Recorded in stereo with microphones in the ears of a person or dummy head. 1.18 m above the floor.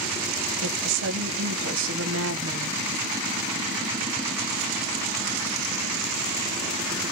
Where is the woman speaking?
65° right (ahead or behind), 1.0 m.